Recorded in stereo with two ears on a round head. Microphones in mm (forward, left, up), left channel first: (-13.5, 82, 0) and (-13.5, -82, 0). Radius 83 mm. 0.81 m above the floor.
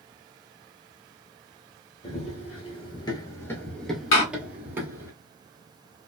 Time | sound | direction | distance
2.0 | running footsteps | 35° left (ahead or behind) | 1.1 m
4.1 | a door slam | 70° left (ahead or behind) | 1.0 m